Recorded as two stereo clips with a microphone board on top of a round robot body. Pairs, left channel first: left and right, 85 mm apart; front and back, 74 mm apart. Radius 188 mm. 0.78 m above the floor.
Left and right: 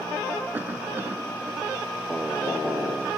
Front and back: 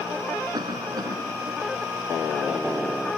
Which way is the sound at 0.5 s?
155° right.